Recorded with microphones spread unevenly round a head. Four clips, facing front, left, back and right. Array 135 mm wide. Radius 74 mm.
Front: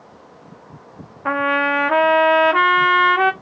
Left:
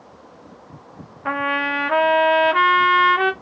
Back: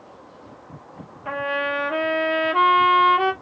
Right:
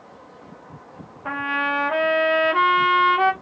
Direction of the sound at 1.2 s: 10° left.